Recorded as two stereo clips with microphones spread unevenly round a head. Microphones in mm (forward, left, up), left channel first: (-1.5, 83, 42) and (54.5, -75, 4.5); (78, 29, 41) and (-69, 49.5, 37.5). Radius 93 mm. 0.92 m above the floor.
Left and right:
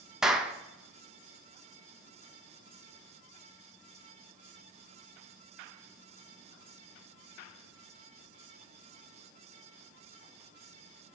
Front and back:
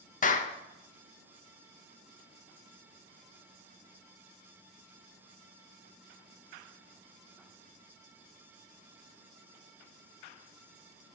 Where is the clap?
5° left, 0.8 m.